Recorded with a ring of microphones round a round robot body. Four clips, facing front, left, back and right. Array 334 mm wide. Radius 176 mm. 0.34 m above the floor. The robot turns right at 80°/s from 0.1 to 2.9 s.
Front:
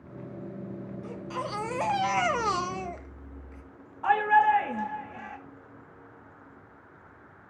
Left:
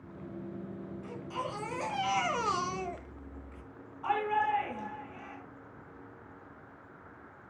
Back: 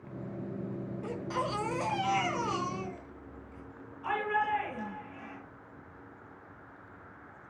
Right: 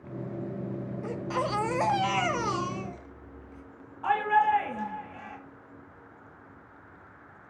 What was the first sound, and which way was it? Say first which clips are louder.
A baby crying: right 8 dB, back 1 dB; 120° right.